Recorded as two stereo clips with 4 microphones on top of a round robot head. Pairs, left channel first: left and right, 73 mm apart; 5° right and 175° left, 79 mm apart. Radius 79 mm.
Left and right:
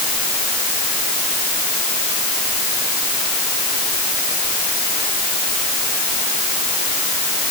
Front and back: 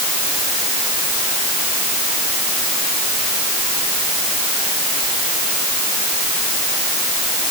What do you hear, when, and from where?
Only background noise.